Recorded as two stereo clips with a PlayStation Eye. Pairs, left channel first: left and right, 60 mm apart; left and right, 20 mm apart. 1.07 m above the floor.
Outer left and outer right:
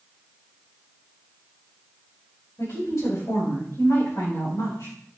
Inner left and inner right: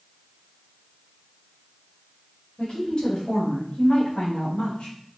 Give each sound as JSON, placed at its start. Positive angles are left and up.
{"t": 2.6, "sound": "a woman speaking", "side_deg": 85, "distance_m": 4.0}